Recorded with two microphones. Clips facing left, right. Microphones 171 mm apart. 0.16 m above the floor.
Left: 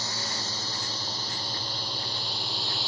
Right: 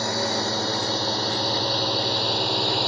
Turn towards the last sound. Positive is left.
turn(degrees=-70)  # may be behind; listen again after turning